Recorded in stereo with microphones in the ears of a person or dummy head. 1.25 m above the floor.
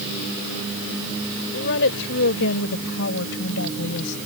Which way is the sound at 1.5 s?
70° left (ahead or behind).